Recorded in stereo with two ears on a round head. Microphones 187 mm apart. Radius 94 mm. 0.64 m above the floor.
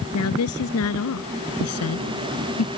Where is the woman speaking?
85° left; by 2.7 s 80° left.